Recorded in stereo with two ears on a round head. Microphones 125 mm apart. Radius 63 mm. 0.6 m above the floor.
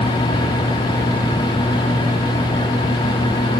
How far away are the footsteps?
I don't hear footsteps.